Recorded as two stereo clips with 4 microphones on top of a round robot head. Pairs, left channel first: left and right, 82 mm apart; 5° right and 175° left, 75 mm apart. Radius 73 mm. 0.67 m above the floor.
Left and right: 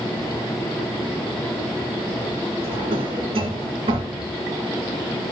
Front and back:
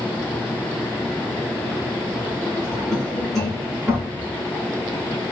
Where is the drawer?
95° right, 2.0 m.